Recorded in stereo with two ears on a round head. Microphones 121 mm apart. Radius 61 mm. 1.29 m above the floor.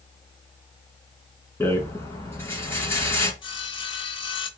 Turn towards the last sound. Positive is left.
turn(degrees=35)  # may be behind; listen again after turning